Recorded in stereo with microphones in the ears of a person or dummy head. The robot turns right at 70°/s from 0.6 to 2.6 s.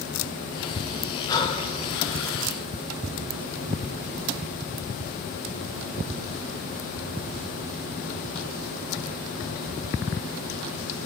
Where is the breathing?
20° left, 2.5 m; by 2.5 s 105° left, 2.5 m.